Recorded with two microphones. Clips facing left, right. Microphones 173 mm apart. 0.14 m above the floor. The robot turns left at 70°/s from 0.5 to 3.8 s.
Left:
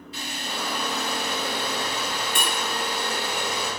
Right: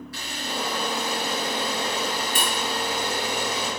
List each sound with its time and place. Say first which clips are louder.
0.1 s a camera shutter: right 1 dB; 25° left (ahead or behind), 1.9 m; by 3.7 s 5° left (ahead or behind), 1.9 m